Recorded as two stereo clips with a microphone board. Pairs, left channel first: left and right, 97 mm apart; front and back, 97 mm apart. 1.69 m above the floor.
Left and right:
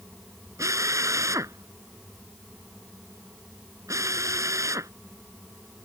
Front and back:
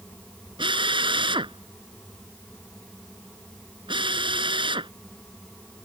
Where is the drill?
150° right.